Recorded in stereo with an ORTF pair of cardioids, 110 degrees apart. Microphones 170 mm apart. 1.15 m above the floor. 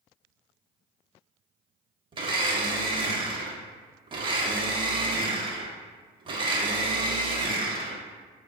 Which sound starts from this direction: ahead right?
A blender, at 2.1 s.